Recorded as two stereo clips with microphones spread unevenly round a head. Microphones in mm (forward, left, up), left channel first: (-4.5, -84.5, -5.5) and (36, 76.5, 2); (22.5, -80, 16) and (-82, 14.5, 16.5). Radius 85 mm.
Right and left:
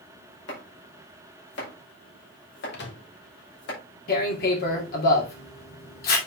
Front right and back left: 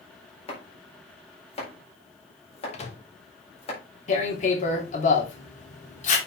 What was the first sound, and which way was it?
Chopping, 90° right.